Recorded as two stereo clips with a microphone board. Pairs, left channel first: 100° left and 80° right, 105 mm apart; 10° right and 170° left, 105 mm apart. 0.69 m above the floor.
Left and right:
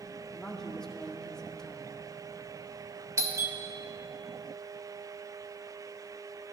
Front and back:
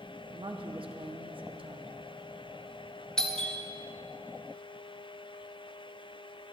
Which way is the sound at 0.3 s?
175° right.